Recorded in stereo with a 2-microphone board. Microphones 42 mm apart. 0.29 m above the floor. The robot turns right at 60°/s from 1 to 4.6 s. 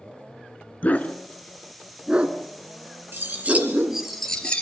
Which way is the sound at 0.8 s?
40° left (ahead or behind).